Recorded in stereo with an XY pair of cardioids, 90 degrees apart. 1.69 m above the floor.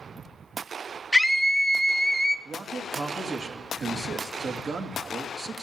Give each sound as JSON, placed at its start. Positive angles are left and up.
{"t": 1.1, "sound": "a scream", "azimuth_deg": -5, "distance_m": 0.6}
{"t": 2.5, "sound": "a man speaking", "azimuth_deg": -60, "distance_m": 2.5}